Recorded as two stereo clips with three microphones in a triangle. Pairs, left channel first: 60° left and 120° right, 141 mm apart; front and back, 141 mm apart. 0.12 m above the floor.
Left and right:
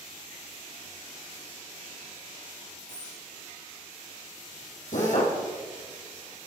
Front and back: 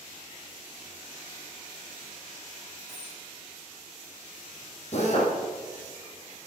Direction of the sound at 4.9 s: 35° left.